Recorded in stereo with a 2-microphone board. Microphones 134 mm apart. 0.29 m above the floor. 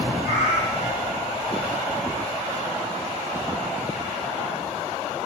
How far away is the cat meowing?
About 2.5 m.